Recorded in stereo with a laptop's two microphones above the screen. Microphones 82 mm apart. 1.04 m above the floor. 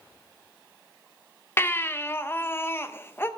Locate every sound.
1.6 s a baby crying: 30° left (ahead or behind), 0.5 m